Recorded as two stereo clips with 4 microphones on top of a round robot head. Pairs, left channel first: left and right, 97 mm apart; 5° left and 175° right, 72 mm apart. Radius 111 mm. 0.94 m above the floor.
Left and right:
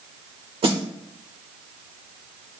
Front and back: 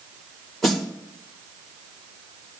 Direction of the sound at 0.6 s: 85° right.